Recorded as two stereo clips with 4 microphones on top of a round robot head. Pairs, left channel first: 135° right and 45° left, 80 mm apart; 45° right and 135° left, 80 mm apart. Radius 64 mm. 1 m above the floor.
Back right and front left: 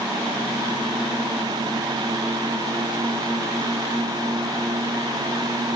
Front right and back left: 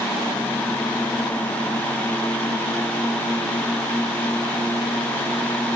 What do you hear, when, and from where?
Only background noise.